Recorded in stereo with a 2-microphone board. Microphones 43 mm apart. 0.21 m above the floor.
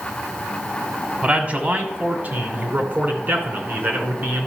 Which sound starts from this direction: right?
A man speaking, at 1.2 s.